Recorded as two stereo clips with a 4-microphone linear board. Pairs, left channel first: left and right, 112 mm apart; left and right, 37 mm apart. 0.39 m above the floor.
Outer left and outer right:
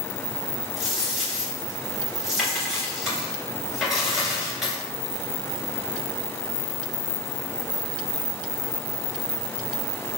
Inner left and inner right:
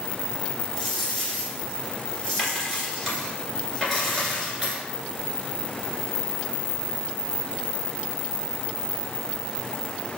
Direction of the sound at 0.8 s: Centre (ahead or behind).